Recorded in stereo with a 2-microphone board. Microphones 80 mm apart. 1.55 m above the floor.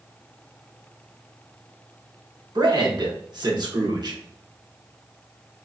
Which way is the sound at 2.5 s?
60° right (ahead or behind).